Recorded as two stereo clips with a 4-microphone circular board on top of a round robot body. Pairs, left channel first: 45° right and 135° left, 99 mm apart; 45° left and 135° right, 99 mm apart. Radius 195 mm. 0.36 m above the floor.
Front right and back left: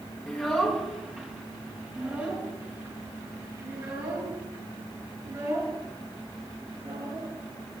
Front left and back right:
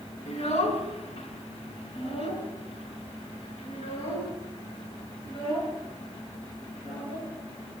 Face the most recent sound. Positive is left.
turn(degrees=80)